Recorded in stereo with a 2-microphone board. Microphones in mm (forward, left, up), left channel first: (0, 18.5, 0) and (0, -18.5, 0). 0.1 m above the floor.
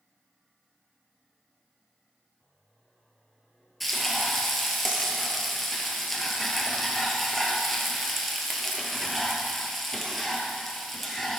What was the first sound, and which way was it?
Frying, 5° left (ahead or behind).